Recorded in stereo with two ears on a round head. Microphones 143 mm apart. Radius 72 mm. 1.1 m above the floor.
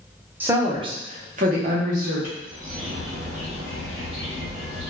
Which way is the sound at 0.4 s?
10° right (ahead or behind).